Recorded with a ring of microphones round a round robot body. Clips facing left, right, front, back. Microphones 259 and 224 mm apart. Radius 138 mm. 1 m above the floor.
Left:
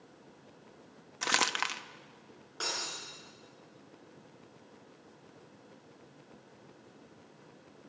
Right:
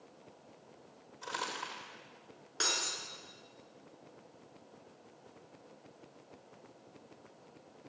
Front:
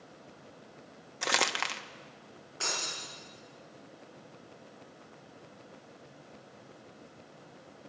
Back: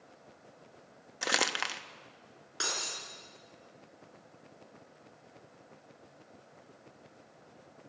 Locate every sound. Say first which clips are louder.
1.2 s crumpling: left 6 dB, front 1 dB; 95° left, 1.1 m
2.6 s breaking glass: right 1 dB, front 1 dB; 145° right, 6 m